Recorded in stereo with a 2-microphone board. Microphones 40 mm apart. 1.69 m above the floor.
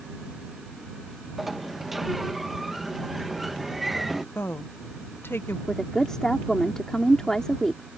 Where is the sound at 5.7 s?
15° left (ahead or behind).